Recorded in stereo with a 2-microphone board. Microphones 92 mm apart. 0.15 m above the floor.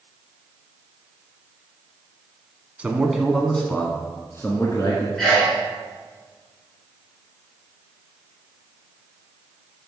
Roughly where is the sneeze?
Centre.